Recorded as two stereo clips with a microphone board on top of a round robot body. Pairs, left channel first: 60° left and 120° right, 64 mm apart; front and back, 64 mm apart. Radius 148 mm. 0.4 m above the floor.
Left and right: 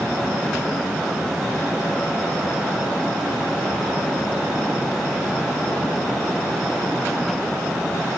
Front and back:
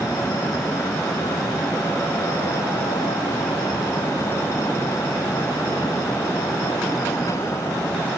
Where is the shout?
I don't hear a shout.